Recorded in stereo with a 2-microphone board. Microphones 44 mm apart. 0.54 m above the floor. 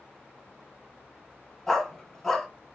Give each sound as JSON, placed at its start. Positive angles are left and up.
{"t": 1.7, "sound": "a dog barking", "side_deg": 0, "distance_m": 1.7}